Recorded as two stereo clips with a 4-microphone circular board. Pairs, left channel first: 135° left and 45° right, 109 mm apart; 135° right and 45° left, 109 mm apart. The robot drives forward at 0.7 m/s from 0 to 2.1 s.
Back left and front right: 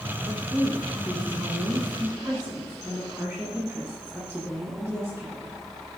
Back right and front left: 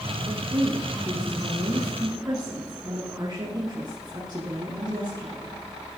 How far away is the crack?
I don't hear a crack.